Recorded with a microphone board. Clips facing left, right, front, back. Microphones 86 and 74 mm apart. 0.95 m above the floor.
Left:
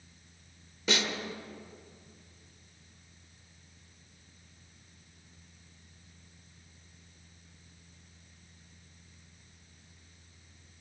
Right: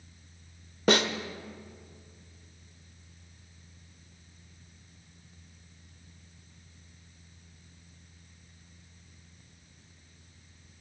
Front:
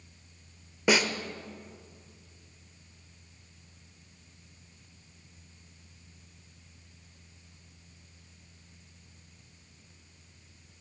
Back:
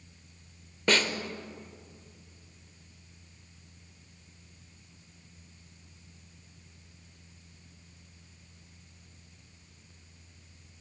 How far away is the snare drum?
About 0.9 m.